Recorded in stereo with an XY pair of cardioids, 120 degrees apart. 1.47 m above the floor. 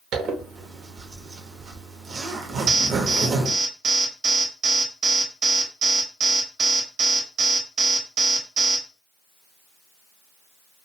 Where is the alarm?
50° right, 0.8 m.